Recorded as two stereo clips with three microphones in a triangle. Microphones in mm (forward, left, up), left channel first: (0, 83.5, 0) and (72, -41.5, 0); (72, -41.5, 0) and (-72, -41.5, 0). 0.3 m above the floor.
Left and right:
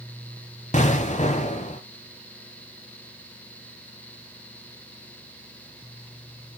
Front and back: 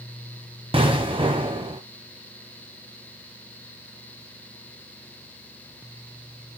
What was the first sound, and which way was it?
An explosion, 135° left.